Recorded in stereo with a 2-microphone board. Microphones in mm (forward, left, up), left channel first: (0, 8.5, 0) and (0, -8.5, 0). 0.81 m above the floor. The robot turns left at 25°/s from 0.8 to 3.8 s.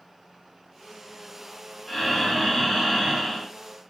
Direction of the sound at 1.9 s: Straight ahead.